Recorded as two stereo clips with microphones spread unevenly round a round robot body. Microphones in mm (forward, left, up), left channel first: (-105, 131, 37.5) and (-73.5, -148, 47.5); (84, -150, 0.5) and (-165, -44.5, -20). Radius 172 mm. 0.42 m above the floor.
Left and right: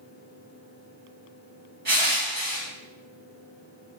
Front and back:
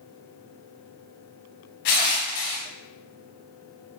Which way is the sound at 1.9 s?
20° right.